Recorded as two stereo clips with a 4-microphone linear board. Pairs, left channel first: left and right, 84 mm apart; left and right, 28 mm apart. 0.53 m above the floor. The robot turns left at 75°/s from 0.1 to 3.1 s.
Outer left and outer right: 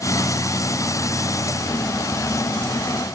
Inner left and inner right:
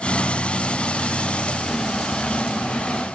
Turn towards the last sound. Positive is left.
No sound to turn to.